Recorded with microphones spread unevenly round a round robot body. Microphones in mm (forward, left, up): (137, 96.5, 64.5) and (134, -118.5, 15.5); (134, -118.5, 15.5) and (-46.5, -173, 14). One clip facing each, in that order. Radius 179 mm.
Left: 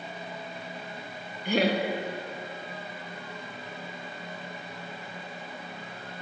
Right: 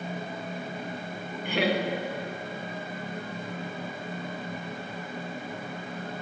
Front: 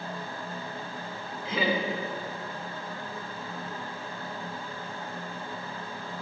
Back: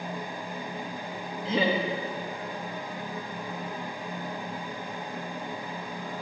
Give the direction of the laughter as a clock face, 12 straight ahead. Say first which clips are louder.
Left 2 dB, back 2 dB; 7 o'clock.